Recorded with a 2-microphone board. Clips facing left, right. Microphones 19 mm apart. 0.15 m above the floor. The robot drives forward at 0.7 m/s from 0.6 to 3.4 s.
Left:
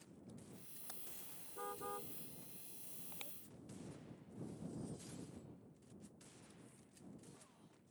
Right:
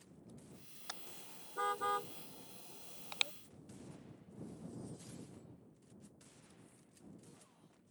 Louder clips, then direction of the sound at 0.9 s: Right 8 dB; 45° right (ahead or behind).